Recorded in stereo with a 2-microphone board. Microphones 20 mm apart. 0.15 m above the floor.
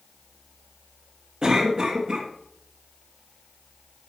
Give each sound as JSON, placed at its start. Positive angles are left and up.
{"t": 1.4, "sound": "a cough", "side_deg": -30, "distance_m": 1.6}